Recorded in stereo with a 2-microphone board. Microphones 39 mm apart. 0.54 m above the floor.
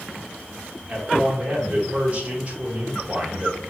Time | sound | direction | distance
0.9 | a man speaking | 35° right (ahead or behind) | 1.2 m